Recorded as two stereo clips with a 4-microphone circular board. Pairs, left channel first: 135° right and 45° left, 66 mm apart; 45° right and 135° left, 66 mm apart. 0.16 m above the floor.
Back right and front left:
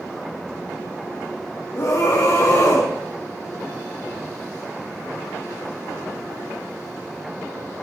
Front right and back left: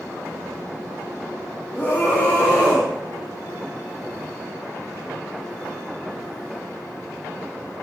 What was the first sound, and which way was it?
A scream, 115° right.